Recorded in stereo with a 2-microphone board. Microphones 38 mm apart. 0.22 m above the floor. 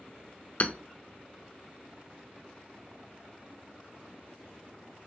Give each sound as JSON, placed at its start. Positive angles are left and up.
{"t": 0.6, "sound": "hammering", "side_deg": 40, "distance_m": 0.7}